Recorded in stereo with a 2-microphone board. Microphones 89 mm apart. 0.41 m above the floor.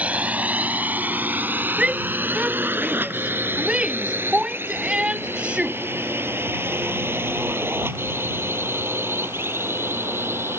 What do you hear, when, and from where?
0.0 s a drone: 15° right (ahead or behind); by 10.6 s 25° right (ahead or behind)
1.8 s a shout: 10° right (ahead or behind)